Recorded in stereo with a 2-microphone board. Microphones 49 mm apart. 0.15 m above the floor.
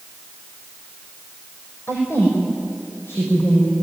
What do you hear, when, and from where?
1.9 s a woman speaking: 60° left (ahead or behind), 5.5 m; by 3.7 s 70° left (ahead or behind), 8 m